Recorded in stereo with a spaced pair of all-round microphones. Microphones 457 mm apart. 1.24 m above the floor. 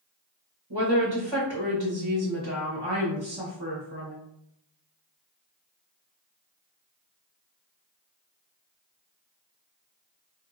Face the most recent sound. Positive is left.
turn(degrees=-55)  # may be behind; listen again after turning